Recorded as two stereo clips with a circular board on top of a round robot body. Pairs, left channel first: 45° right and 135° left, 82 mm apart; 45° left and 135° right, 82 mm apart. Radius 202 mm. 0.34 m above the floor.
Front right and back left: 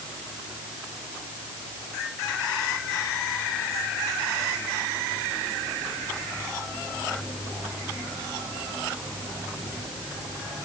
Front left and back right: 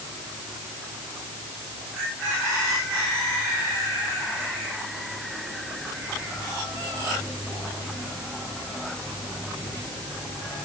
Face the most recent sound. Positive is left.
No sound to turn to.